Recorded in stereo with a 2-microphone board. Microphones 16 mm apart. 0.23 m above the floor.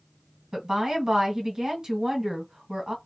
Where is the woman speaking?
50° right (ahead or behind), 1.7 m.